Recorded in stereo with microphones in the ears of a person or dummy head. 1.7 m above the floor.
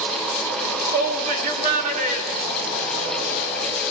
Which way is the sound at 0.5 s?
60° right (ahead or behind).